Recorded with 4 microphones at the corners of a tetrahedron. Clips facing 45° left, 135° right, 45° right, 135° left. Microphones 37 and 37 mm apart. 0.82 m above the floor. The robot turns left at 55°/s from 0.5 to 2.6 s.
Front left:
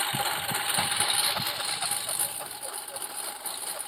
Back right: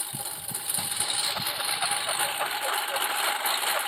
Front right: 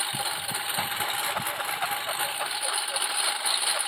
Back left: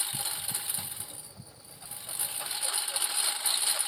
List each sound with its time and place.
0.0 s a lawn mower: 10° left; by 3.9 s 105° right